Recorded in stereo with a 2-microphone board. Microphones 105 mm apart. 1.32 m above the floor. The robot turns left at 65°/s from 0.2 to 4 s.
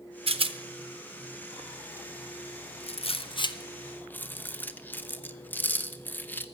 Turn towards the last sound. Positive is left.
turn(degrees=20)  # may be behind; listen again after turning